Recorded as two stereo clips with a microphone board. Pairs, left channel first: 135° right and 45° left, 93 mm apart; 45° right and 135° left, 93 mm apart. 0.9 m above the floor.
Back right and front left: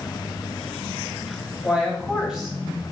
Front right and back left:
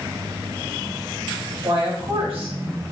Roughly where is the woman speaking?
Behind left.